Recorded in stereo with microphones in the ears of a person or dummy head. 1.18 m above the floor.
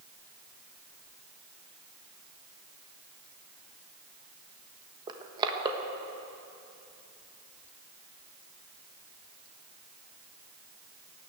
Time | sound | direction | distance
5.1 | crushing | 30° right (ahead or behind) | 1.2 m